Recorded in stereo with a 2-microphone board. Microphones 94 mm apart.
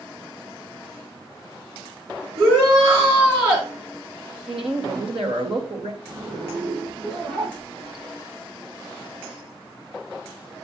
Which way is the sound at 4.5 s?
70° right (ahead or behind).